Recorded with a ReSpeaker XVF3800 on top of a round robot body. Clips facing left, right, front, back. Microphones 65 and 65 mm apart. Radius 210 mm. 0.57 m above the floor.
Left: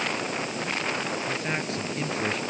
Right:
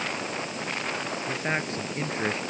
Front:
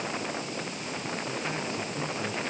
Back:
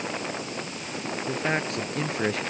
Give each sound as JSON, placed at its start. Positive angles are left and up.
{"t": 1.3, "sound": "a man speaking", "azimuth_deg": -155}